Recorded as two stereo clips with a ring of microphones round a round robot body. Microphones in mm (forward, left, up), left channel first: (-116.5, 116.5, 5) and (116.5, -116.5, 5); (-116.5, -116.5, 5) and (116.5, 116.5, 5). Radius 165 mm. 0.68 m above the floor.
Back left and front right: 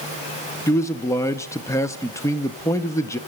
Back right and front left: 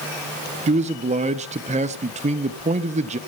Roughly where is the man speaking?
Left.